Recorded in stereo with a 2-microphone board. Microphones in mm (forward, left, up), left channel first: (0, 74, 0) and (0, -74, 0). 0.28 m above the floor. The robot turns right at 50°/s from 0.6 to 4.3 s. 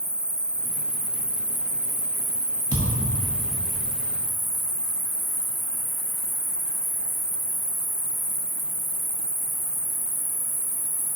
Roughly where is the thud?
Right.